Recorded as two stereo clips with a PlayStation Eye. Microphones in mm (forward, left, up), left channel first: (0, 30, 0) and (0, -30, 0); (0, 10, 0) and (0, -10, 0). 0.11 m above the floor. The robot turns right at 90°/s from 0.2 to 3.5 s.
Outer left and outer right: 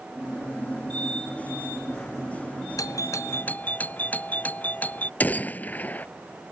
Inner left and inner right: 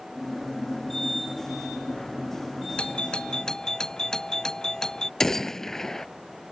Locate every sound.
2.8 s a doorbell: 85° left; by 5.1 s 150° left
5.2 s a gunshot: 30° left (ahead or behind)